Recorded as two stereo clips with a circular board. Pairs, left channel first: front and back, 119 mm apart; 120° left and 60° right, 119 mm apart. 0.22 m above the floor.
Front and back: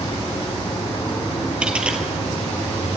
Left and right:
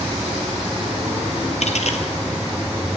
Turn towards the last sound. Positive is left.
turn(degrees=100)